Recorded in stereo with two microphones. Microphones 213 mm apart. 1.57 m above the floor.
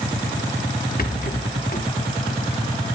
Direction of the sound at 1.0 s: 45° left (ahead or behind).